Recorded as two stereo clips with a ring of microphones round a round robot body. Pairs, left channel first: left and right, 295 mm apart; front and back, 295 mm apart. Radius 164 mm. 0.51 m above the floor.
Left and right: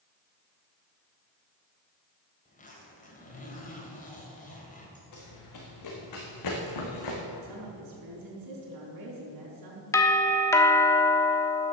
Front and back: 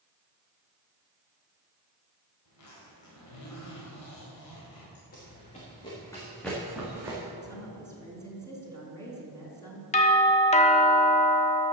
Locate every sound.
2.5 s a zipper: 30° left, 3.5 m
5.1 s running footsteps: 65° left, 3.5 m; by 7.2 s 100° left, 3 m
7.4 s a woman speaking: 80° right, 4.5 m
9.9 s a doorbell: 25° left, 1.2 m